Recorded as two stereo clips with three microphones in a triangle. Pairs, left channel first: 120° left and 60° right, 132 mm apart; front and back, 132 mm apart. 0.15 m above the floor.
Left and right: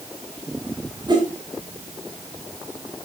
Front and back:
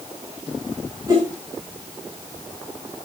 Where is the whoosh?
115° right, 7 m.